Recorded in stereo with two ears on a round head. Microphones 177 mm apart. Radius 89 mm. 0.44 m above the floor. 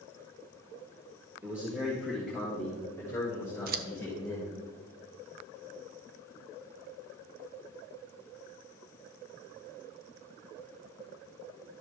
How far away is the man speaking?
About 1.7 m.